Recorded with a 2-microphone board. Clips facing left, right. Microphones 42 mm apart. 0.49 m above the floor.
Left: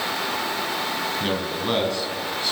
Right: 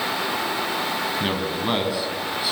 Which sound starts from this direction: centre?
A man speaking, at 1.2 s.